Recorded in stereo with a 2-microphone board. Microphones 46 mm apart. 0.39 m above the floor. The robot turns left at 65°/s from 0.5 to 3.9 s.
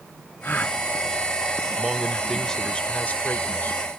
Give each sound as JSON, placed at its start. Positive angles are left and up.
{"t": 0.4, "sound": "a gasp", "side_deg": 45}
{"t": 1.8, "sound": "a man speaking", "azimuth_deg": -155}